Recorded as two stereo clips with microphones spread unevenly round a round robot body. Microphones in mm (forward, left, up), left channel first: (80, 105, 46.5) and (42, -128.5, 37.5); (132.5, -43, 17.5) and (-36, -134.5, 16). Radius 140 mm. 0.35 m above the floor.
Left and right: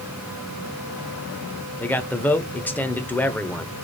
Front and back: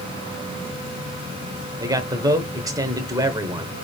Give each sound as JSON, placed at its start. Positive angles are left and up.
{"t": 1.8, "sound": "a man speaking", "azimuth_deg": 160, "distance_m": 0.8}